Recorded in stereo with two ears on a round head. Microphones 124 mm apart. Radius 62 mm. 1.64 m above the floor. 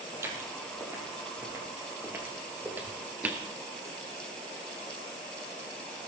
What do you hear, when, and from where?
0.1 s footsteps: 20° right (ahead or behind), 3.5 m; by 3.5 s 10° right (ahead or behind), 2.0 m